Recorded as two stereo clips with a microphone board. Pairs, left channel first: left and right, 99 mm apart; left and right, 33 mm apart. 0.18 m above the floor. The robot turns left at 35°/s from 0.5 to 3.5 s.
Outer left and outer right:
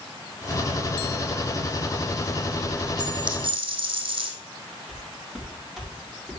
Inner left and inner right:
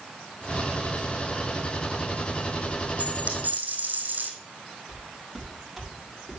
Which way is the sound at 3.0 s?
40° right (ahead or behind).